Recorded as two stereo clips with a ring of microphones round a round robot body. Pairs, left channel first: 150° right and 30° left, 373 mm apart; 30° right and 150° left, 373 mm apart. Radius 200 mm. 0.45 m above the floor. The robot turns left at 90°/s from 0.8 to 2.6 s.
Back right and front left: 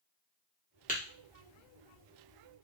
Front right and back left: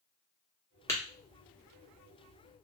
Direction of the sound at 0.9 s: 105° right.